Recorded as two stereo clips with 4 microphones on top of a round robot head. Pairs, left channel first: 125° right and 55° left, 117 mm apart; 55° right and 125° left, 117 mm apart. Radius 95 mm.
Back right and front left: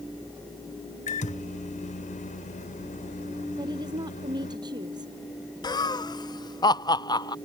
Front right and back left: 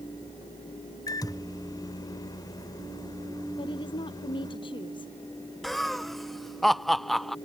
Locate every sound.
1.1 s a microwave: 115° right
3.6 s a woman speaking: 5° right
5.6 s laughter: 140° right